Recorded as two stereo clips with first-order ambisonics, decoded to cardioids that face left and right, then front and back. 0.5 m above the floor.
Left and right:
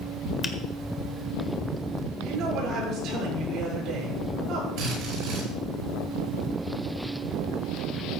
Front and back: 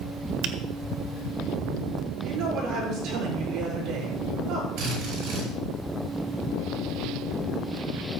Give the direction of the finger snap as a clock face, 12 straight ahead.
7 o'clock.